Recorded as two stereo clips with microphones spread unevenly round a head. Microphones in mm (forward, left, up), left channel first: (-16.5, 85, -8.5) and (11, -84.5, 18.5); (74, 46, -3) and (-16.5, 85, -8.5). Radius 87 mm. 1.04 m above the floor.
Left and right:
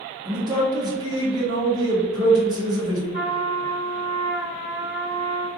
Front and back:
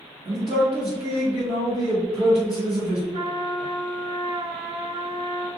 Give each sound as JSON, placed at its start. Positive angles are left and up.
{"t": 0.2, "sound": "a man speaking", "azimuth_deg": -150, "distance_m": 1.2}
{"t": 3.1, "sound": "a trumpet", "azimuth_deg": 170, "distance_m": 1.7}